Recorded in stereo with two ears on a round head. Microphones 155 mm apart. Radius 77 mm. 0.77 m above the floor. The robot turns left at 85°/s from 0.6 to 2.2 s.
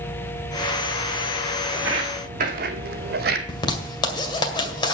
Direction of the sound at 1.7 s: Centre (ahead or behind).